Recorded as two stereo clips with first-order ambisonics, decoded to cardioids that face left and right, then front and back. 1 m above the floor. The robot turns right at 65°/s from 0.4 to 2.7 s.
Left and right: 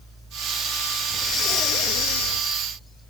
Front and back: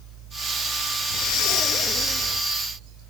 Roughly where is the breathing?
Ahead.